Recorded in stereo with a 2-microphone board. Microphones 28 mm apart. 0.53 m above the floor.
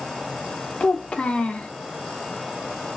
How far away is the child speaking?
About 0.9 m.